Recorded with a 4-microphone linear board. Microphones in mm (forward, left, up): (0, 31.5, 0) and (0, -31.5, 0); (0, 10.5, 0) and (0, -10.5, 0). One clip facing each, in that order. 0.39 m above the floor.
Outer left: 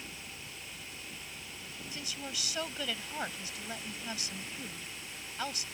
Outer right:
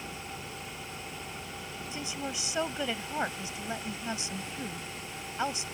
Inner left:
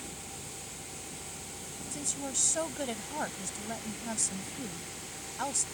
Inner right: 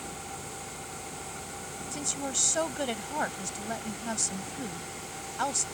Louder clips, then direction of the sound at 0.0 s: Outer right 6 dB, inner right 4 dB; 45° right (ahead or behind).